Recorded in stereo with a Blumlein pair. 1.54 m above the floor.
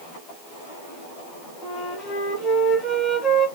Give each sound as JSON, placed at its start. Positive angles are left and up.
{"t": 1.6, "sound": "a flute", "azimuth_deg": 25, "distance_m": 1.4}